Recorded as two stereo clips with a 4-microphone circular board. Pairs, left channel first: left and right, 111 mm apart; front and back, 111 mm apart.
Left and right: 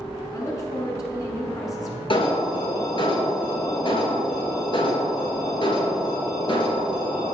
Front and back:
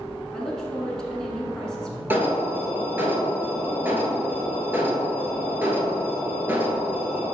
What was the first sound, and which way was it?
A woman speaking, 80° left.